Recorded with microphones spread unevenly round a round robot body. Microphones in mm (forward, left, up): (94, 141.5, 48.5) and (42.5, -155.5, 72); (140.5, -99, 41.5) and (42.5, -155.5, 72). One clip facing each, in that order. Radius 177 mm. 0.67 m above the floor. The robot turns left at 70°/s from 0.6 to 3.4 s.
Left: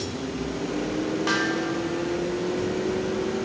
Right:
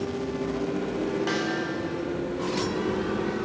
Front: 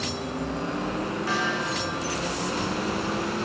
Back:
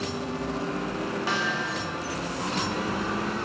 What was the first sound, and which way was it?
A snare drum, 155° left.